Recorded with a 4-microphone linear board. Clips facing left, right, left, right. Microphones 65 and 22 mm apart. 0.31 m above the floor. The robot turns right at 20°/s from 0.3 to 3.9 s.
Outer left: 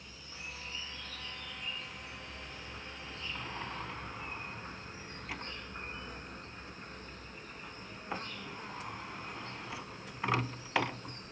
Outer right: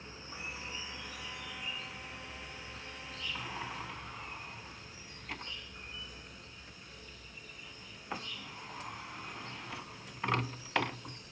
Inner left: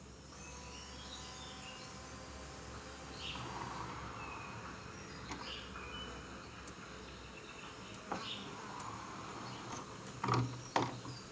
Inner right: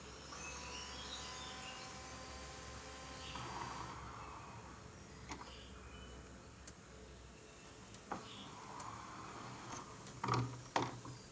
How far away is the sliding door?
About 0.6 m.